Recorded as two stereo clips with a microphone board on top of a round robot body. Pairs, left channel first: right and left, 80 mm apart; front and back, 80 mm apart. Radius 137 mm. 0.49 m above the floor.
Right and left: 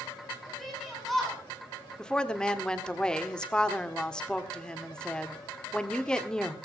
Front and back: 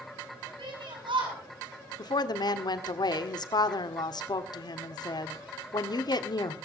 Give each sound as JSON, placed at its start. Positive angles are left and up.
{"t": 0.6, "sound": "a shout", "azimuth_deg": 180, "distance_m": 8.5}
{"t": 2.0, "sound": "a woman speaking", "azimuth_deg": -10, "distance_m": 1.7}